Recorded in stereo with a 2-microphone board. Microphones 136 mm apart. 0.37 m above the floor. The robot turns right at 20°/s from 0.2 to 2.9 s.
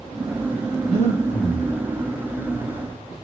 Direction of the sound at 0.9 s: 50° left (ahead or behind).